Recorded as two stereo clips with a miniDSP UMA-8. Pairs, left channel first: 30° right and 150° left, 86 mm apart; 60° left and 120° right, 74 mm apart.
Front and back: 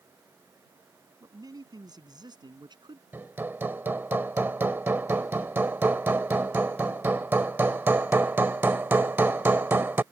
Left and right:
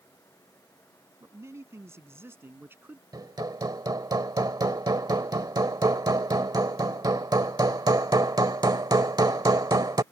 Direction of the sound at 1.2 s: 165° right.